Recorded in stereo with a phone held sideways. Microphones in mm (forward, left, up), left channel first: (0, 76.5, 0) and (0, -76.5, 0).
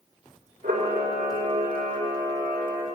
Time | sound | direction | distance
0.6 | a camera shutter | 80° right | 3 m